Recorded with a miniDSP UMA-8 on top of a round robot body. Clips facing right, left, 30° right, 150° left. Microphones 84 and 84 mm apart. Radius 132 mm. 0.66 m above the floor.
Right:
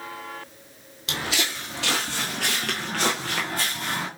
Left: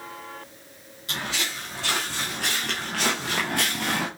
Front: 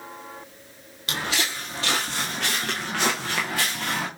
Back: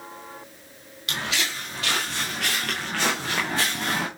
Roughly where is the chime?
I don't hear a chime.